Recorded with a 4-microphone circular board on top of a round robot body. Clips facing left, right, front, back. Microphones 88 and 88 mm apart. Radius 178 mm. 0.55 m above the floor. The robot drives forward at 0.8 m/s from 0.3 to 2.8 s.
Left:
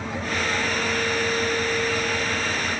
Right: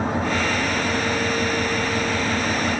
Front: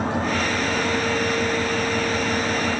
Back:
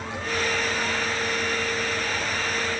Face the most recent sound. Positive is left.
turn(degrees=-45)